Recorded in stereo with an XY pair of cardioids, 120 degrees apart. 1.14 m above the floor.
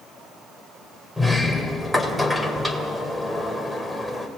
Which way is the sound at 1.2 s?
Straight ahead.